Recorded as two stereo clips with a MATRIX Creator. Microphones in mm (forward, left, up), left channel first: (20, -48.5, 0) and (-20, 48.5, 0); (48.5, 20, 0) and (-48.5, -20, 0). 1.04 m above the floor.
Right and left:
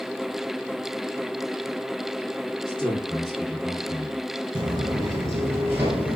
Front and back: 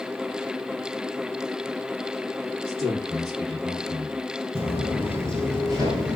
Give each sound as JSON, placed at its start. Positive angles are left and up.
{"t": 2.7, "sound": "a man speaking", "azimuth_deg": -150, "distance_m": 2.5}
{"t": 4.5, "sound": "footsteps", "azimuth_deg": 130, "distance_m": 1.4}